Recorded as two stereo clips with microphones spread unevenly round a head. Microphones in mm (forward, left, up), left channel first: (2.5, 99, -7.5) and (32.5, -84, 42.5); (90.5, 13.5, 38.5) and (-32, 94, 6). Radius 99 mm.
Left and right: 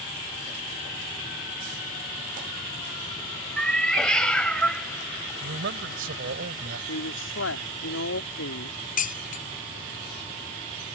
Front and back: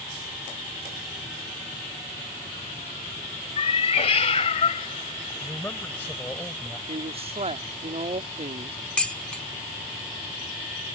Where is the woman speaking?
100° left.